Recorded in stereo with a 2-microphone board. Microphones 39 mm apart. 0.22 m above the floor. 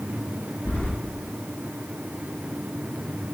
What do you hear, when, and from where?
0.7 s keys jangling: 65° left (ahead or behind), 3 m